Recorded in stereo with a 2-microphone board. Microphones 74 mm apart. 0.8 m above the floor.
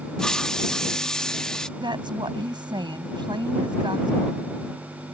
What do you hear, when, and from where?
0.2 s a hiss: 10° left (ahead or behind)
1.8 s a woman speaking: 80° right